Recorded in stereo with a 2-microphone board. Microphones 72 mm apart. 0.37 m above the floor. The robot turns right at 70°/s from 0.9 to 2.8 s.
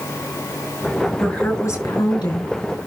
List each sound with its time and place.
1.2 s a woman speaking: 5° left, 6 m; by 2.9 s 115° left, 6 m